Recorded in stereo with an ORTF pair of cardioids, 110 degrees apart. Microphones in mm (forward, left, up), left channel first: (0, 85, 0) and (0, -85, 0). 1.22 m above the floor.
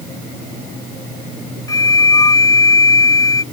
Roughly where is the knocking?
I don't hear knocking.